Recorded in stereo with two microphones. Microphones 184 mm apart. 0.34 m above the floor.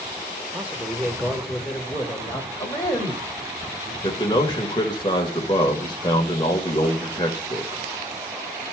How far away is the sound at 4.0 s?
About 0.9 m.